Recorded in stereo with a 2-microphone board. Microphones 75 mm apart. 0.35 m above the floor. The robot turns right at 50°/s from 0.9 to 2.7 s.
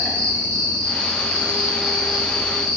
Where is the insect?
15° left, 1.8 m; by 2.8 s 105° left, 1.8 m.